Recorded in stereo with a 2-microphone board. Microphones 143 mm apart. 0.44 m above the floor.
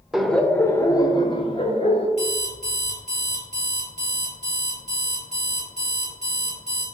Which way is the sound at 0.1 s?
5° right (ahead or behind).